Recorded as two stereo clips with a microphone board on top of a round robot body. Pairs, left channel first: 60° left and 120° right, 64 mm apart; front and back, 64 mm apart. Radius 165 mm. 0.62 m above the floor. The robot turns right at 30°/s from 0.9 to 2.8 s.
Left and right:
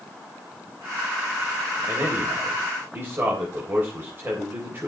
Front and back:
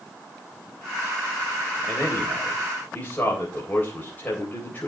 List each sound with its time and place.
1.9 s a man speaking: 90° right, 3.5 m; by 4.9 s 65° right, 3.5 m